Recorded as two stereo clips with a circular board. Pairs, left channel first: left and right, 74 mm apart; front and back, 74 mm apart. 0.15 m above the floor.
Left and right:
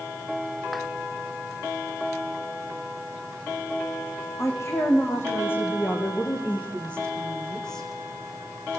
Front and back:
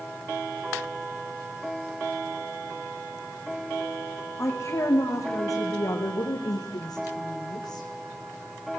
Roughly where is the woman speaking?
Ahead left.